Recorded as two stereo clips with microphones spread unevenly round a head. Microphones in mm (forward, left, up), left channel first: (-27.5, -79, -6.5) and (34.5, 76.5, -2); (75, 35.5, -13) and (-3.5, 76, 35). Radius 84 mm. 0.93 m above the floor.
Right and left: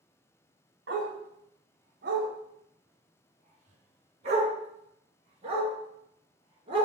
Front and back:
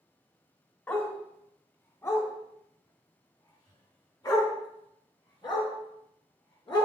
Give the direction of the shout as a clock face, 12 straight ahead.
No shout in this recording.